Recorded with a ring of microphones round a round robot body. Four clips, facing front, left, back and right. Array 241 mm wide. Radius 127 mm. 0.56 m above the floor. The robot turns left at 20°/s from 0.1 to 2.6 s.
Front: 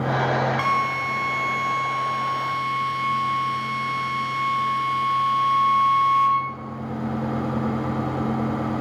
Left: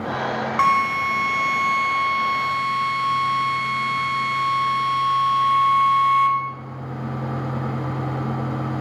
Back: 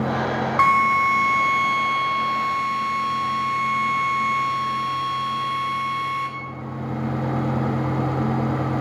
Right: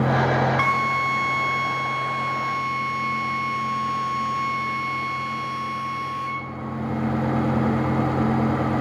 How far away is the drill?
About 4 m.